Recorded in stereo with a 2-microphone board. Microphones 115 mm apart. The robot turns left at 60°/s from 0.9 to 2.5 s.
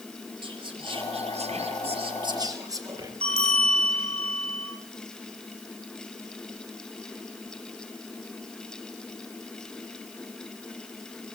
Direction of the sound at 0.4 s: 50° right.